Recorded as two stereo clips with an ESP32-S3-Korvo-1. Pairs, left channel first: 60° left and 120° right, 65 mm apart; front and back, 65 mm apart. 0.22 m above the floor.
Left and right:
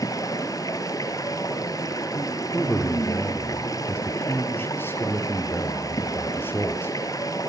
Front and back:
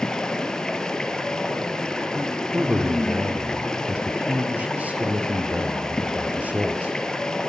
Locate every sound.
0.0 s running water: 80° left, 3.5 m
2.5 s a man speaking: 110° left, 5 m